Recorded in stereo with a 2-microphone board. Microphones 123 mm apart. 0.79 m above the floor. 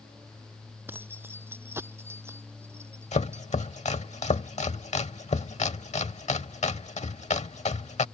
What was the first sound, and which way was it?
Keys jangling, 15° right (ahead or behind).